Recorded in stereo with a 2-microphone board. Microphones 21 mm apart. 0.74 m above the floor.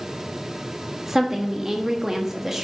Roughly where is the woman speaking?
Centre.